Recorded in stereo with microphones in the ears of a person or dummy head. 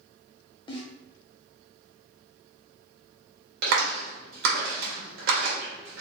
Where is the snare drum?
25° left (ahead or behind), 0.9 m.